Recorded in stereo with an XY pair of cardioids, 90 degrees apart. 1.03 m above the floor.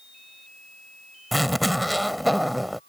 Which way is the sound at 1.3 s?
5° right.